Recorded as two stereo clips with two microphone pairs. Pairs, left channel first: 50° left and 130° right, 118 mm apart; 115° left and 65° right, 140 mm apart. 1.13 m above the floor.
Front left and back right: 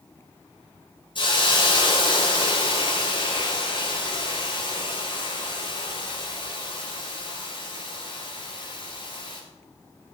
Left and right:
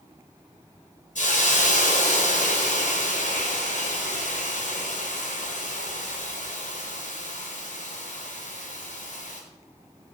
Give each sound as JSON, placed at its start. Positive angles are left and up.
{"t": 1.1, "sound": "a hiss", "azimuth_deg": 95, "distance_m": 5.0}